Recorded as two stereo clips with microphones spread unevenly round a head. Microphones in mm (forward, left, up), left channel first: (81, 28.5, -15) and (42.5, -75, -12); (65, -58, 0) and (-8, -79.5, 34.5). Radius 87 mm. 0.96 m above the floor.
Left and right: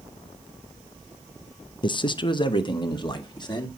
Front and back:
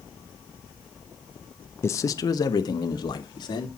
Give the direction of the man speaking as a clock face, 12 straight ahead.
11 o'clock.